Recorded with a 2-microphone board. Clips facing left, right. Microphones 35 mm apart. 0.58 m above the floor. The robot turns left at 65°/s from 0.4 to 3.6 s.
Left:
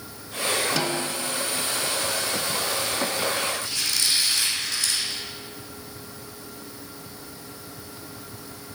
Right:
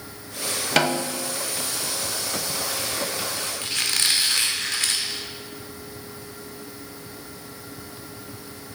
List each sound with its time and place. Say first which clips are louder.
0.8 s a snare drum: right 4 dB; 115° right, 0.5 m; by 1.4 s 155° right, 0.5 m
3.6 s a squeak: right 2 dB; 60° right (ahead or behind), 1.0 m